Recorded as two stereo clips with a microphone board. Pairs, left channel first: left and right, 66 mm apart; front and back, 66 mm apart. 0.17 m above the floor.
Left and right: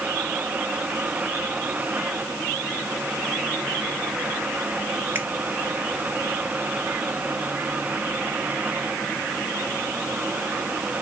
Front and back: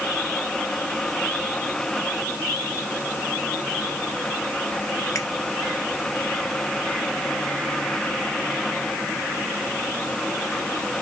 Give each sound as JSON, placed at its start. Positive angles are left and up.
{"t": 5.2, "sound": "a finger snap", "azimuth_deg": -35, "distance_m": 2.5}